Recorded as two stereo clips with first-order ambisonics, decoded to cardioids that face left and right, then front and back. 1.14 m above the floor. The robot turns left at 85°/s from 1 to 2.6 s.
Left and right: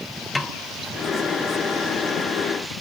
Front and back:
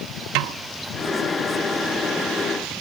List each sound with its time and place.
0.3 s a snare drum: 165° left, 0.7 m